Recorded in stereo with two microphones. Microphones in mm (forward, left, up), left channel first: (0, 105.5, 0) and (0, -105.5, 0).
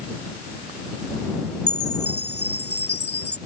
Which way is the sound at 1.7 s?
60° left (ahead or behind).